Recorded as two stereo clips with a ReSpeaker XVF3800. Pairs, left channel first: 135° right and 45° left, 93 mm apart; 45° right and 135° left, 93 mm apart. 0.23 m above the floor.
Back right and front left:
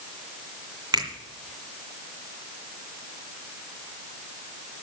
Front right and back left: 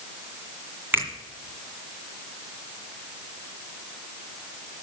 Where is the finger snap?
75° left, 2 m.